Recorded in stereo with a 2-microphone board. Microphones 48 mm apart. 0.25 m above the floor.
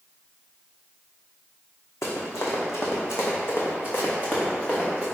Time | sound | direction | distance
2.0 | running footsteps | 85° left | 1.2 m